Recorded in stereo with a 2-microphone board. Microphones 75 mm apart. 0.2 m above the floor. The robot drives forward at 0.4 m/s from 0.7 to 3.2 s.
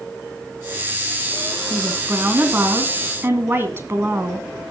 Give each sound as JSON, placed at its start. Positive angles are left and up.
{"t": 1.7, "sound": "a woman speaking", "side_deg": -25, "distance_m": 1.9}